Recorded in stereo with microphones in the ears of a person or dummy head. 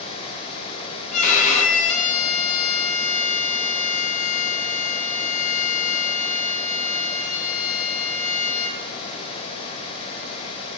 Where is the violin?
45° left (ahead or behind), 1.5 m.